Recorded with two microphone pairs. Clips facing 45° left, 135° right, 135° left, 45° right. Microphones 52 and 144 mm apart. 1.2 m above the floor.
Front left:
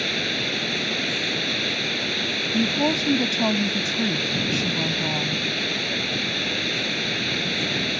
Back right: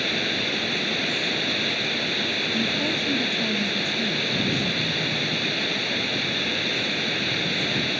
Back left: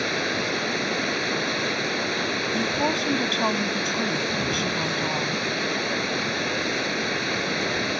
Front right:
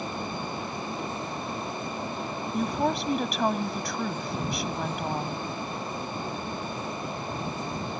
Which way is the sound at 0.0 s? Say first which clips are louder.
Even, back left 6 dB; 135° left.